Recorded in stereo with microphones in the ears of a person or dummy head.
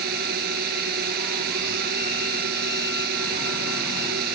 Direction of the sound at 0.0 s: 50° right (ahead or behind).